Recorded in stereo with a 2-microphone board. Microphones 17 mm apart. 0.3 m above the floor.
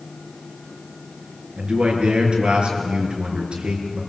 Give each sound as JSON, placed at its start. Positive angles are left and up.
{"t": 1.6, "sound": "a man speaking", "side_deg": -75, "distance_m": 5.0}